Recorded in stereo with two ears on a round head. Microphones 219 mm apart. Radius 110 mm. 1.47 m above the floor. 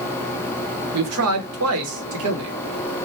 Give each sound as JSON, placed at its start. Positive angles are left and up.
{"t": 0.9, "sound": "a man speaking", "side_deg": -65, "distance_m": 0.9}